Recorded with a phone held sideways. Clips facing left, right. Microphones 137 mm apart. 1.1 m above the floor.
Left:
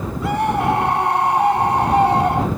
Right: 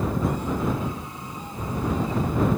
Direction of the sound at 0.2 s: 85° left.